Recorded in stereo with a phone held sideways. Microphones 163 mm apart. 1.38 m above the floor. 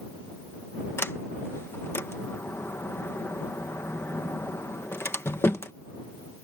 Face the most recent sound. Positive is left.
turn(degrees=15)  # may be behind; listen again after turning